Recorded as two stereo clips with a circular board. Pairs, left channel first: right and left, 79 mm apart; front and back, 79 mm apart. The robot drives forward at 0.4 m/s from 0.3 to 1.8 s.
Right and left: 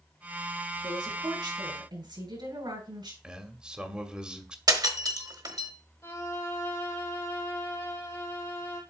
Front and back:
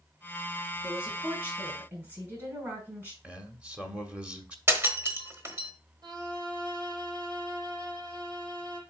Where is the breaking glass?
125° left, 1.1 m.